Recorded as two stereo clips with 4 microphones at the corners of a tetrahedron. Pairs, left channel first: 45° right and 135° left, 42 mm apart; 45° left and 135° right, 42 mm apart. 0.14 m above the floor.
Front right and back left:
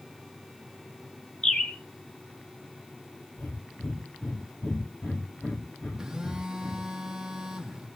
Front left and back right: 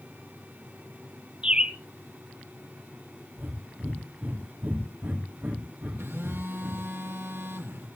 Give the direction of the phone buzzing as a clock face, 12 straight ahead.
5 o'clock.